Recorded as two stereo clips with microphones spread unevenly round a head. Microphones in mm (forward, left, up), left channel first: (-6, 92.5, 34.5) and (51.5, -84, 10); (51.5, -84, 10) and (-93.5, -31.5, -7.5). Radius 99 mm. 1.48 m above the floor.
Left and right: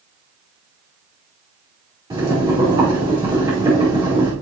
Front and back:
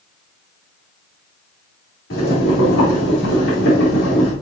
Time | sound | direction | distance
2.1 | boiling | 5° right | 4.5 m